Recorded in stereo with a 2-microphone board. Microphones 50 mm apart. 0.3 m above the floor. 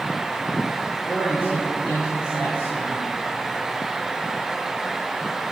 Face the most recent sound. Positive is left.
turn(degrees=50)  # may be behind; listen again after turning